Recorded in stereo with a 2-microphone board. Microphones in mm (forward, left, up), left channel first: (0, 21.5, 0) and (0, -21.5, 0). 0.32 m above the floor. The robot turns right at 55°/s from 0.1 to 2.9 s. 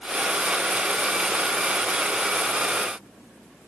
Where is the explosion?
I don't hear an explosion.